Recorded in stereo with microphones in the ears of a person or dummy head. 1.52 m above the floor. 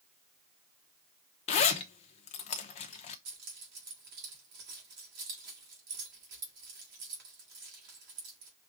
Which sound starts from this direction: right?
Keys jangling, at 3.2 s.